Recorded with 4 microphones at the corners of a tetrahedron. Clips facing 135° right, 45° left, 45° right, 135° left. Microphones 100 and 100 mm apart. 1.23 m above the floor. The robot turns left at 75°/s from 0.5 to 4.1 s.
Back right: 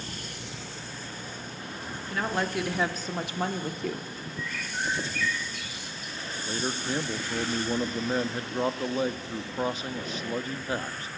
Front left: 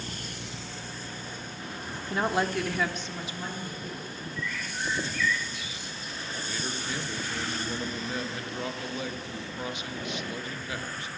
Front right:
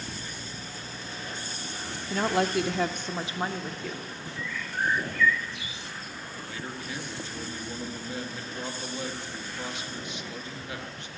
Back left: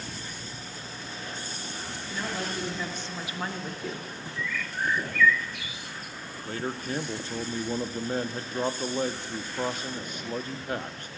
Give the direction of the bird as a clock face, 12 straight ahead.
3 o'clock.